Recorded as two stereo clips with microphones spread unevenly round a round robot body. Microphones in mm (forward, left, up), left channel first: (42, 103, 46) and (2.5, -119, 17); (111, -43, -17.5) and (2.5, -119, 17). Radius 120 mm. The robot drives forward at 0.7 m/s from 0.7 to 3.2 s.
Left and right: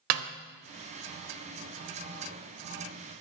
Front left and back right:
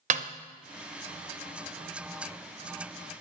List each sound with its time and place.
0.1 s a snare drum: 105° right, 0.8 m